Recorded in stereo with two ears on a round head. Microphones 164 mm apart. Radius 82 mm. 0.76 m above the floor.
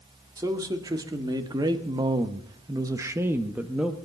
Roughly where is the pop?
I don't hear a pop.